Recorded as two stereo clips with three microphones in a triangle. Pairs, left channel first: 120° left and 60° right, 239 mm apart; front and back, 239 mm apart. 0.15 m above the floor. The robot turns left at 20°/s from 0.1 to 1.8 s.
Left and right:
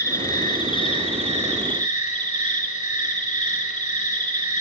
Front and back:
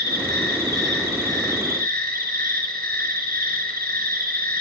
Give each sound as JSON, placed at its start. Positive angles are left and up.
{"t": 0.0, "sound": "an insect", "azimuth_deg": -170, "distance_m": 2.5}